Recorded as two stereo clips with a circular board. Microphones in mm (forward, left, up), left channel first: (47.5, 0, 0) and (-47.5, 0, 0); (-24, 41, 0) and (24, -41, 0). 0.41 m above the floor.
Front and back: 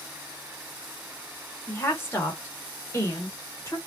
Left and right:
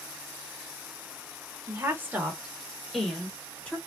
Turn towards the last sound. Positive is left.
turn(degrees=50)